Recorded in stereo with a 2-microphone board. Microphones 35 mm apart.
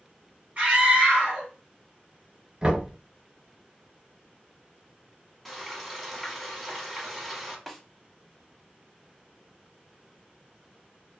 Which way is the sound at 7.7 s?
Centre (ahead or behind).